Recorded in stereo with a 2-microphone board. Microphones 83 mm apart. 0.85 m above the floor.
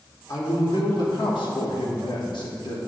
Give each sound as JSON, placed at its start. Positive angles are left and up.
{"t": 0.3, "sound": "a man speaking", "side_deg": 50, "distance_m": 1.8}